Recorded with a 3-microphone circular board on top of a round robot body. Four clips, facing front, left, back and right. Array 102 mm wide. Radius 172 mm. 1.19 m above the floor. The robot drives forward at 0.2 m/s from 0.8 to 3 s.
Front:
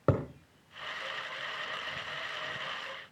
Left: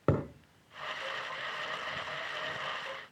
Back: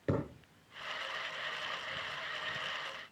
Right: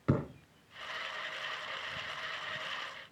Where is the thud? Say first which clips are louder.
Left 2 dB, front 5 dB; 35° left, 1.2 m.